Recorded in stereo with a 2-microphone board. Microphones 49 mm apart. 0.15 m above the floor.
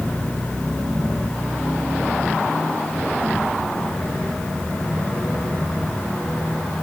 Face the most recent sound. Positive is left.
No sound to turn to.